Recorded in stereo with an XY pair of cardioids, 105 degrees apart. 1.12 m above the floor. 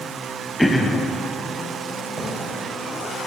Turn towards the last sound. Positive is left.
turn(degrees=-30)